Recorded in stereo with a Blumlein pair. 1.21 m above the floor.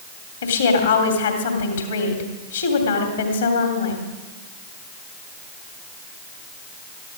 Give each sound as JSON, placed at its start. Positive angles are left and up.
{"t": 0.4, "sound": "a woman speaking", "azimuth_deg": 65, "distance_m": 2.5}